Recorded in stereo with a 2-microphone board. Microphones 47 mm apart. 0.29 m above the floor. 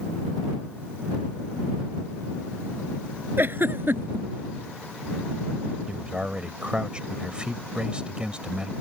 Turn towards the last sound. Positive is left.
turn(degrees=-25)  # may be behind; listen again after turning